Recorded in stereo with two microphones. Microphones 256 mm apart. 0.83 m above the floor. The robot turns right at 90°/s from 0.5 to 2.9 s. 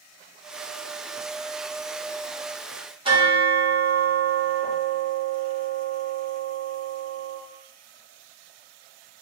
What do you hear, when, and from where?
3.0 s a bell: 20° right (ahead or behind), 1.7 m